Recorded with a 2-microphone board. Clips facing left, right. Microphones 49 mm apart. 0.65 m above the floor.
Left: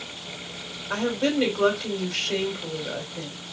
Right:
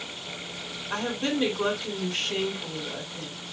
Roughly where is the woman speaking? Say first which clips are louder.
Left 4 dB; left.